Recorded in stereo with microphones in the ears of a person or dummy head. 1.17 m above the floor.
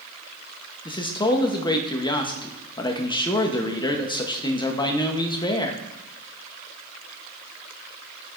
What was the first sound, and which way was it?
A man speaking, 25° left (ahead or behind).